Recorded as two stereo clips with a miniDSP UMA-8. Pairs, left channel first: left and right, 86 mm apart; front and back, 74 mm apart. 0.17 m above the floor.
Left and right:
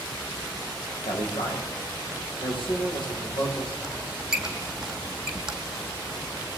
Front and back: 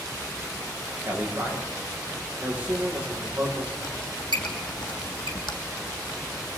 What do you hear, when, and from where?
1.1 s a man speaking: 110° left, 8.5 m
3.8 s a squeak: 5° right, 2.5 m